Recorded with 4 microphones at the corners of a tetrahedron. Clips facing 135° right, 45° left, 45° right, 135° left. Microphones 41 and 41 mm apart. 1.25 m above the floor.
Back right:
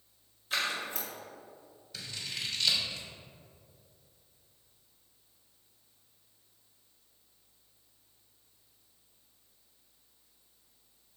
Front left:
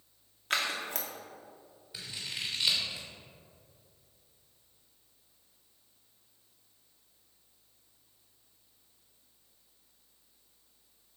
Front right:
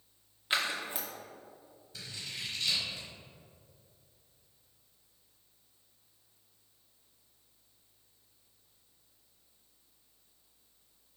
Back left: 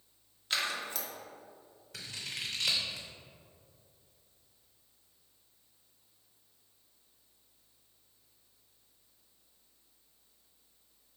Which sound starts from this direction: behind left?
Scissors, at 1.9 s.